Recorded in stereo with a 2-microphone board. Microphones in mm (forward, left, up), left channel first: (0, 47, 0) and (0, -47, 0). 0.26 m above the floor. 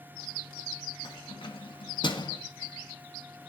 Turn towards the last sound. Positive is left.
turn(degrees=50)  # may be behind; listen again after turning